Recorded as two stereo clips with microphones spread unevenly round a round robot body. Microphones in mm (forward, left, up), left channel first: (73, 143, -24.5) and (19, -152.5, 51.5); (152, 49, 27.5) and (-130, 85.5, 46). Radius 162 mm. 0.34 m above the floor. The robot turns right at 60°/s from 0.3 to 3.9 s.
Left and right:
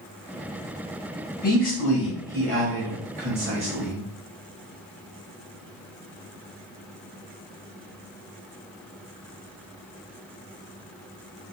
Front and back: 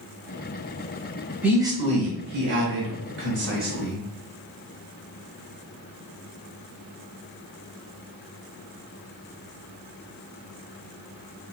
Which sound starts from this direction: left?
A man speaking, at 1.4 s.